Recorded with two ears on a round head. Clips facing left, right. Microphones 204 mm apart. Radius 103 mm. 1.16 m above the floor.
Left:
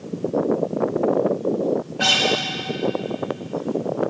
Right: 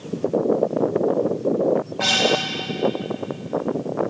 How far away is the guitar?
About 1.8 m.